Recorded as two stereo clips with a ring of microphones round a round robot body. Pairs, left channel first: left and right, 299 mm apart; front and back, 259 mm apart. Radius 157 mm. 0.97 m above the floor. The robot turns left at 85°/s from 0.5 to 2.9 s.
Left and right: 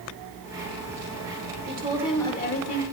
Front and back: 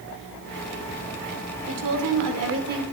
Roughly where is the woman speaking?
Behind right.